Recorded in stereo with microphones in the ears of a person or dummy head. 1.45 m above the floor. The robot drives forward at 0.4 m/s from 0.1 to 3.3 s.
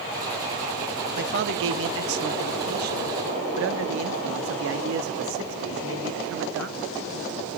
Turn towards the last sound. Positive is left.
turn(degrees=-65)  # may be behind; listen again after turning